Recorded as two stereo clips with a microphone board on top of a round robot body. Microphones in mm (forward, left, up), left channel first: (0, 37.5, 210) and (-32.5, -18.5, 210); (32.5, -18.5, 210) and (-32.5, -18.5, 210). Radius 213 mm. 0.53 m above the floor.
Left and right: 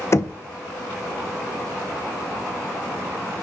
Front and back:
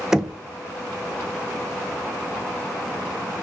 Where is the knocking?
100° left, 0.6 m.